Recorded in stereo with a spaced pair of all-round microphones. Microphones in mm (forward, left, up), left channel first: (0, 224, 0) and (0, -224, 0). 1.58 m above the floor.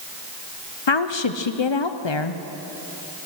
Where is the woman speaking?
70° left (ahead or behind), 0.8 m.